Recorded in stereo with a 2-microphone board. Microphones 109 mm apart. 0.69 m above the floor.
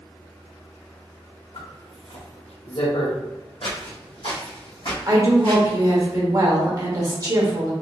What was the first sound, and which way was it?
A zipper, 70° left (ahead or behind).